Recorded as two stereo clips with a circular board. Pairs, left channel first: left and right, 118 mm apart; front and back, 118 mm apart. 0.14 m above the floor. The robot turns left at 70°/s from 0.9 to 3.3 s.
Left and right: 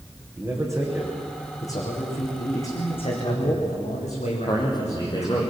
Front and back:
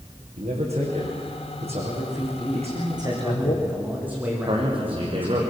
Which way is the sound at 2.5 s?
155° left.